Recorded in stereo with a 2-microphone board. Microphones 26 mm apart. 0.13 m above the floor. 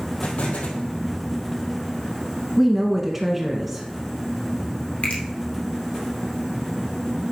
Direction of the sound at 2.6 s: 10° right (ahead or behind).